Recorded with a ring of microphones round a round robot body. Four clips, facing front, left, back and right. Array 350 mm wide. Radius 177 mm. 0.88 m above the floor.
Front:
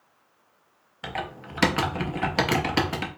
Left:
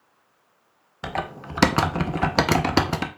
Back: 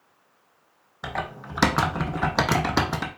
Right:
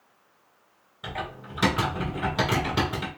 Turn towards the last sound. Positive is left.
turn(degrees=105)